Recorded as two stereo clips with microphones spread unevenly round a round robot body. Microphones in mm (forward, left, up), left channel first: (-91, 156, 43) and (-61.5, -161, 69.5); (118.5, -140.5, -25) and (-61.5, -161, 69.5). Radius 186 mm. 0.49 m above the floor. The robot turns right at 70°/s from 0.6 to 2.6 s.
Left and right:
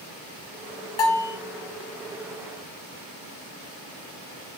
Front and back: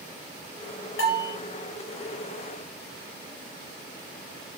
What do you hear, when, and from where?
1.0 s a bell: 45° left, 2.5 m; by 1.4 s 70° left, 2.5 m